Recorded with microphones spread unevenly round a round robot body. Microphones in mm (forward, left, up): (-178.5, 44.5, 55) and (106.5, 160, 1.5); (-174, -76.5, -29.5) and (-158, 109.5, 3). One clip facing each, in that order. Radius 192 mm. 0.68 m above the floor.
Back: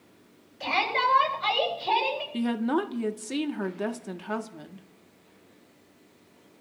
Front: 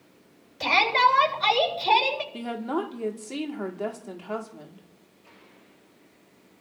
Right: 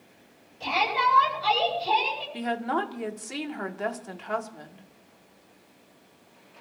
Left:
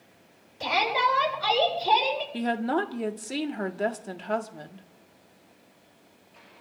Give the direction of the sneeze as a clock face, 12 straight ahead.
No sneeze in this recording.